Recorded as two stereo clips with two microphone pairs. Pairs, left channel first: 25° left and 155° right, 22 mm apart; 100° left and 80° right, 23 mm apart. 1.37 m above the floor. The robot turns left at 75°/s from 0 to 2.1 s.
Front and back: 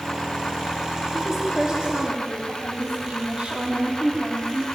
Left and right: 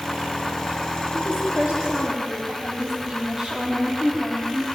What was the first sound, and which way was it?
A woman speaking, 60° right.